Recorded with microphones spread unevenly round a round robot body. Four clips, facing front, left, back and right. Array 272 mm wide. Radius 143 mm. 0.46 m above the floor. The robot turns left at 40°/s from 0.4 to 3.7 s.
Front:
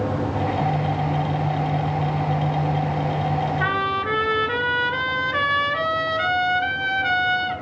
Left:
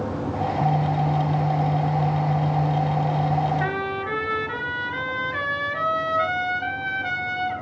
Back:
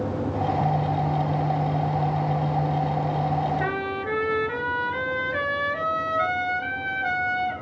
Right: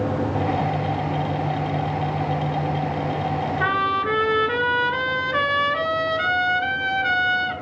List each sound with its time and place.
3.6 s a trumpet: 25° right, 5.5 m